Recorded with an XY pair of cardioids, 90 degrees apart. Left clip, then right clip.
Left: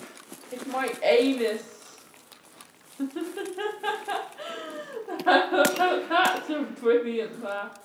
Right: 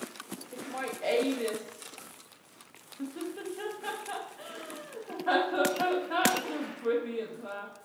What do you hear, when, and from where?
0.5 s laughter: 60° left, 0.8 m